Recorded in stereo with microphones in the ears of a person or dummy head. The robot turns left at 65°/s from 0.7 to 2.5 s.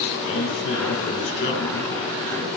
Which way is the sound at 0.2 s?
115° left.